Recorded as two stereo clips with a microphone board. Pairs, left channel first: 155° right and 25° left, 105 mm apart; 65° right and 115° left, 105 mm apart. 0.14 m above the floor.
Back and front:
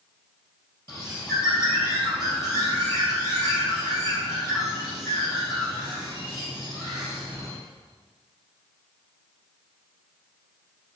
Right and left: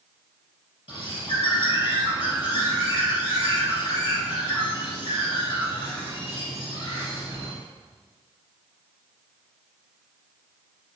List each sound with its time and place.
0.9 s a bird: 95° right, 3 m